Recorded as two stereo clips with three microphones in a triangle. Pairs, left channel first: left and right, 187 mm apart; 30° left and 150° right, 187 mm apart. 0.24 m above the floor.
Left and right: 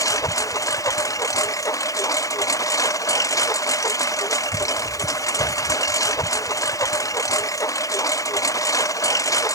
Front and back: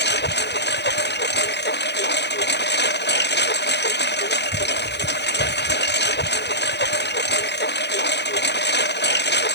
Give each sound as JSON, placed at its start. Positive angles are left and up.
{"t": 0.0, "sound": "a lawn mower", "azimuth_deg": 20}